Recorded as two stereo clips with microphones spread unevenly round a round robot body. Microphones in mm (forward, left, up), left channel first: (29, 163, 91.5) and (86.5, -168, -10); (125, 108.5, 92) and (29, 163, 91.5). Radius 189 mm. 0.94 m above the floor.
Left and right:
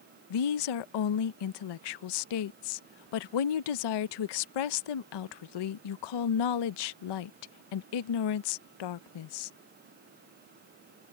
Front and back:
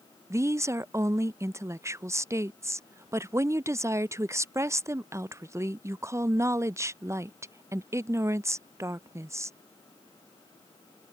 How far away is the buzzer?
No buzzer in this recording.